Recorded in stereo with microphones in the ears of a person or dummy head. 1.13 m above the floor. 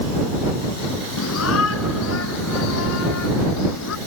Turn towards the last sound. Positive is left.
turn(degrees=90)